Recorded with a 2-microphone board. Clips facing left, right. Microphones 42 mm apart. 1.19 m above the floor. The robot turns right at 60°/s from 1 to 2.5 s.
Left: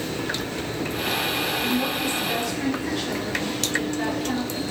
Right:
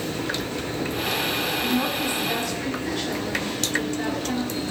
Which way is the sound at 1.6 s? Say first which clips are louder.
Even; 50° right.